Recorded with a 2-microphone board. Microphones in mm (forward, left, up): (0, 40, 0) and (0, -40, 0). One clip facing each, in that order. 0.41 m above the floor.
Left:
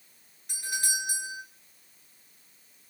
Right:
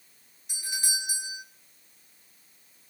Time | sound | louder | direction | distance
0.5 | a doorbell | left 3 dB | 50° left (ahead or behind) | 9 m